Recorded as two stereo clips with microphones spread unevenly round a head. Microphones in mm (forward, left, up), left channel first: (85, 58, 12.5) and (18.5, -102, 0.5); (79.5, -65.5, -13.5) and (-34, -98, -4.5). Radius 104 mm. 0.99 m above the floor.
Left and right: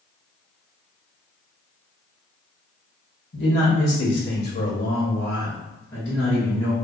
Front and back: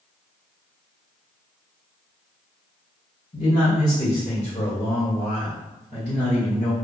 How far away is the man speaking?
About 1.5 m.